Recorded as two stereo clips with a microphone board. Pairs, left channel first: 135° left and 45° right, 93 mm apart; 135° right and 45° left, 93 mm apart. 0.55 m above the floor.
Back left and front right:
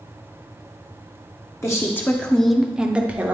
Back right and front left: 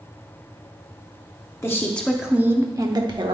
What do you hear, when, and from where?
1.6 s a woman speaking: straight behind, 0.8 m; by 3.4 s 25° left, 1.1 m